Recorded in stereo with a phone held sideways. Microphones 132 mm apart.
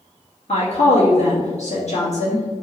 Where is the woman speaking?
60° left (ahead or behind), 2.0 m.